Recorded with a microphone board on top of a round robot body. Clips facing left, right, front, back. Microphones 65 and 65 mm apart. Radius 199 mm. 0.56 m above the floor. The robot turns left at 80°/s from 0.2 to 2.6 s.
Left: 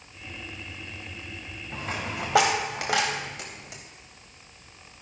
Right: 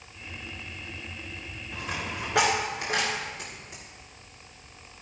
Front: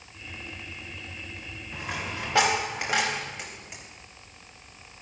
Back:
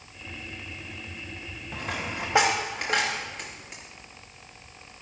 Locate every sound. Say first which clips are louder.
1.7 s a dropped coin: left 2 dB, back 1 dB; 155° left, 0.8 m; by 3.8 s 85° left, 0.8 m